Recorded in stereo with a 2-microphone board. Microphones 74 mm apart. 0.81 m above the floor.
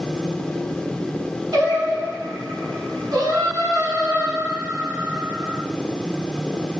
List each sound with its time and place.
1.5 s singing: 60° right (ahead or behind), 1.5 m